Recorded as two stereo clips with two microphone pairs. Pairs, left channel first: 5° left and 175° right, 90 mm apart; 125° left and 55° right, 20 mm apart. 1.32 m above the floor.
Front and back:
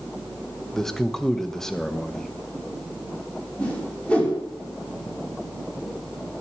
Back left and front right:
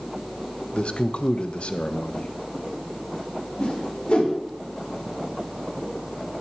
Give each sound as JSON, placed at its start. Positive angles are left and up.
{"t": 0.7, "sound": "a man speaking", "azimuth_deg": 95, "distance_m": 1.1}
{"t": 3.6, "sound": "a whoosh", "azimuth_deg": 85, "distance_m": 4.5}